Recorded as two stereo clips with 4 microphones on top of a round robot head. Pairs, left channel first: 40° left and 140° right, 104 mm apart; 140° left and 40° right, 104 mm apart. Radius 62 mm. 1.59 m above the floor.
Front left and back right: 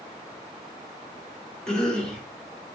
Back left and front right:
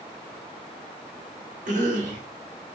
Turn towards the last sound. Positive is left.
turn(degrees=-40)